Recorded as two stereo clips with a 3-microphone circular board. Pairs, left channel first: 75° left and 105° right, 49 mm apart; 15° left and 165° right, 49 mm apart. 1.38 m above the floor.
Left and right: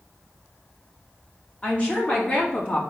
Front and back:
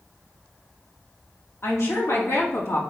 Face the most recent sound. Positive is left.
turn(degrees=15)